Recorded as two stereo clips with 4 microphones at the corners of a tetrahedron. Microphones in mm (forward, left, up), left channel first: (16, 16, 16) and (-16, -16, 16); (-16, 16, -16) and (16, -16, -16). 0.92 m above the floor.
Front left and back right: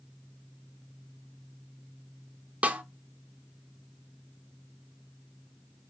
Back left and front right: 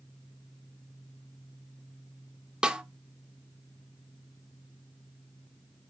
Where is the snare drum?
105° right, 0.6 m.